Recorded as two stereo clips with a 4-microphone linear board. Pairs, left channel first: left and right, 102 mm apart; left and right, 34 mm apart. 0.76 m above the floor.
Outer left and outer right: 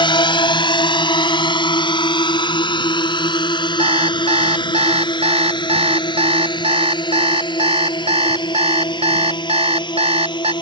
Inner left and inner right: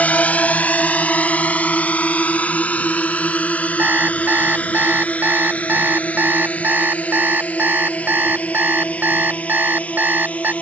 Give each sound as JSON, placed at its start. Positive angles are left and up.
{"t": 0.0, "sound": "a drone", "side_deg": 50}
{"t": 3.8, "sound": "an alarm clock", "side_deg": -85}